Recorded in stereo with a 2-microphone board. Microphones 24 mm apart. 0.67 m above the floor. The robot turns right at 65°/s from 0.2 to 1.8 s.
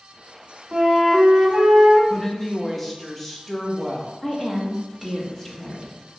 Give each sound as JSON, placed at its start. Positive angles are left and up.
{"t": 0.7, "sound": "a flute", "azimuth_deg": -140, "distance_m": 0.8}
{"t": 2.1, "sound": "a woman speaking", "side_deg": 15, "distance_m": 0.6}
{"t": 4.2, "sound": "a woman speaking", "side_deg": 15, "distance_m": 0.7}